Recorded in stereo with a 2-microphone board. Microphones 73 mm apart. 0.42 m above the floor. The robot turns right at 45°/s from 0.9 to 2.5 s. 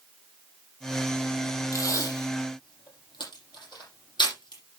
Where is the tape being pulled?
45° left (ahead or behind), 6.5 m; by 4.6 s 80° left, 6.5 m.